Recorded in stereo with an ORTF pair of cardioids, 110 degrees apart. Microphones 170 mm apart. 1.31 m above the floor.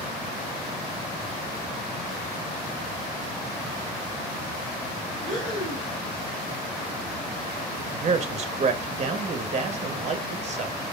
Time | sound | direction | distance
5.2 | breathing | 5° left | 1.9 m
7.8 | a man speaking | 40° right | 0.8 m